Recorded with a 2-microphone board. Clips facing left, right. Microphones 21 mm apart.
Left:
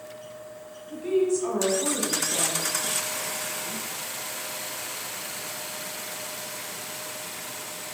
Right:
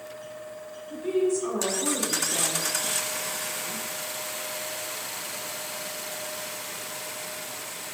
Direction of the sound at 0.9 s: 10° left (ahead or behind).